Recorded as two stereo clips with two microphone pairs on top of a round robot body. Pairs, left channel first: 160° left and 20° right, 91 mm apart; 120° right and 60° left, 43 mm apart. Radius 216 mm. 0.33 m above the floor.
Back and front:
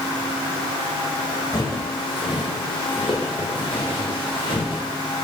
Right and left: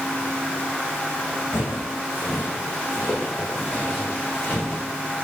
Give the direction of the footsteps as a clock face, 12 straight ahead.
5 o'clock.